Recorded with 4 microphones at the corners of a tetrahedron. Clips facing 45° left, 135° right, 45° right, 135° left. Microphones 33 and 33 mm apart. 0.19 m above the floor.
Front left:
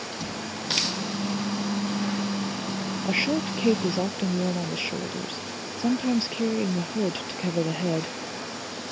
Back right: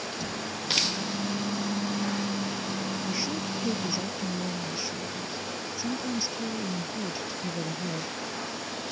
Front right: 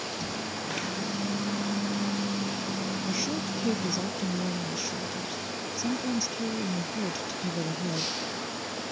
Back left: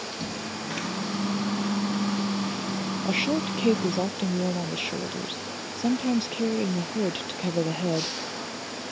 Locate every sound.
0.1 s a microwave: 120° left
3.0 s a woman speaking: 90° left